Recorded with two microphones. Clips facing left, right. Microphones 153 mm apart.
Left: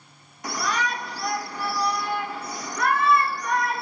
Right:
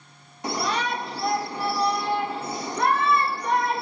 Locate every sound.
0.4 s a shout: 25° right (ahead or behind), 0.7 m